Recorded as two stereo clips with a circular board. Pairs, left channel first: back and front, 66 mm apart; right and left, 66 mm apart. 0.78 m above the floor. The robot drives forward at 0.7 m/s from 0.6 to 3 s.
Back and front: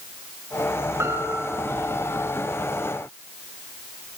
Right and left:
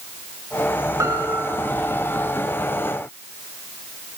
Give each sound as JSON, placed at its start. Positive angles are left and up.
{"t": 1.0, "sound": "a piano", "azimuth_deg": 50, "distance_m": 3.0}